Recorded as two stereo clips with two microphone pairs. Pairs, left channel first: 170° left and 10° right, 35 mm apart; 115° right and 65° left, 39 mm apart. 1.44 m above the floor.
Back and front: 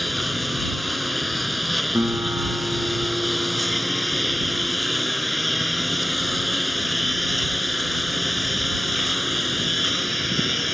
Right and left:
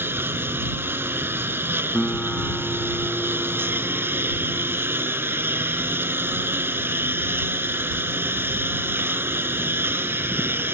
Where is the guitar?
40° right.